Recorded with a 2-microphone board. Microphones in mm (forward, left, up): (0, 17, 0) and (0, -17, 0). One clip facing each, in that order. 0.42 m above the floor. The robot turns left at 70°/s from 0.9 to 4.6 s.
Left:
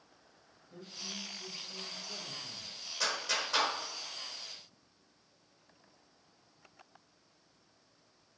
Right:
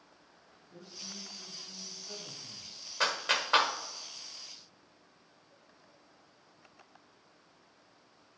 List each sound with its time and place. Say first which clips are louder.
0.7 s a man speaking: left 3 dB; 20° left, 2.5 m; by 2.8 s 105° right, 2.5 m
3.0 s a clap: right 4 dB; 45° right (ahead or behind), 1.1 m; by 3.7 s 40° right (ahead or behind), 1.1 m